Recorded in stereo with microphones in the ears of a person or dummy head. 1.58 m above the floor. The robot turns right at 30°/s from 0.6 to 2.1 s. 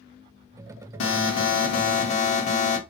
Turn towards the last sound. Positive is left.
turn(degrees=135)